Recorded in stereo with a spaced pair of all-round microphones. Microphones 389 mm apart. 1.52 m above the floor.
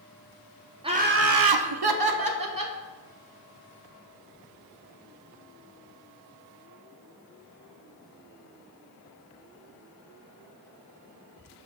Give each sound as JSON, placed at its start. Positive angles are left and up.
{"t": 0.8, "sound": "laughter", "side_deg": -15, "distance_m": 0.7}